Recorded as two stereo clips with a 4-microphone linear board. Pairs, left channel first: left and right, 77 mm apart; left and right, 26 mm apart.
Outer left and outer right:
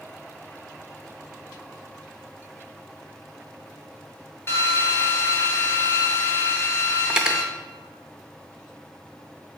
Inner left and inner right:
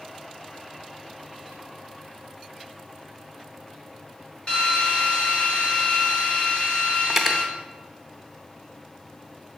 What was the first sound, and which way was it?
A drill, 35° left (ahead or behind).